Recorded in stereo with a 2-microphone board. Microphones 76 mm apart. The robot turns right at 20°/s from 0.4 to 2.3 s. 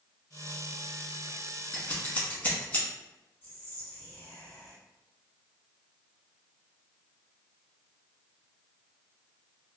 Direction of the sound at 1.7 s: 20° left (ahead or behind).